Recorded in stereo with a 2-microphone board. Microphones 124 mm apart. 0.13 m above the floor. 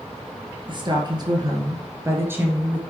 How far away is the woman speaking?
About 2 m.